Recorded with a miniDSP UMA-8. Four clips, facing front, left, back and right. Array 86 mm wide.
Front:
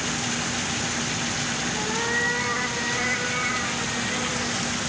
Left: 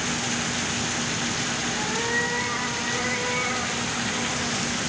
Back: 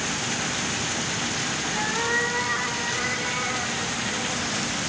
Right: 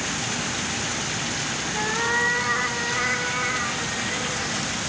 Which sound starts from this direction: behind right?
A cat meowing, at 1.7 s.